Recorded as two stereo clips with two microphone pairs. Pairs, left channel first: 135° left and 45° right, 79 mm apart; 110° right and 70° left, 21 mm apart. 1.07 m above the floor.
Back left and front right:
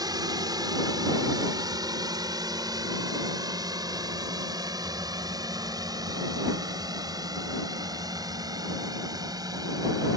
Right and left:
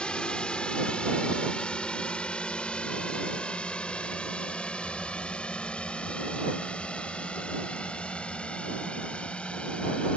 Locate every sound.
0.0 s a drone: 75° right; by 10.2 s 80° right